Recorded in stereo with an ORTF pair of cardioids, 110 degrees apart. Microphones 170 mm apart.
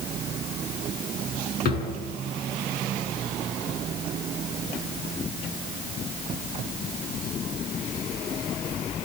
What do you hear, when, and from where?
1.6 s a drawer: 65° left, 7.5 m